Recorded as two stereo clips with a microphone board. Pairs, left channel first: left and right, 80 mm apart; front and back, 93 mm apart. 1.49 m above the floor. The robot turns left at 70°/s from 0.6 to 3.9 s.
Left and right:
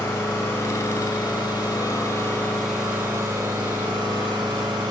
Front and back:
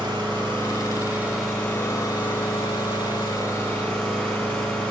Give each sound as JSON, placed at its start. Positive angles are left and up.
{"t": 0.0, "sound": "an engine running", "azimuth_deg": 150, "distance_m": 2.0}